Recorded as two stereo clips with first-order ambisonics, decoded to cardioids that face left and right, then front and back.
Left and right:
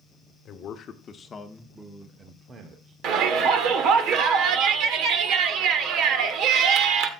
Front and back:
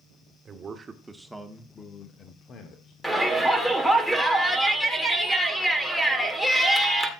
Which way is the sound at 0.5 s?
125° left.